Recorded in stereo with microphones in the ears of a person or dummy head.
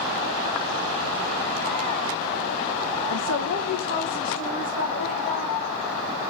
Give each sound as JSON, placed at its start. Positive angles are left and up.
{"t": 3.1, "sound": "a woman speaking", "side_deg": 75, "distance_m": 0.6}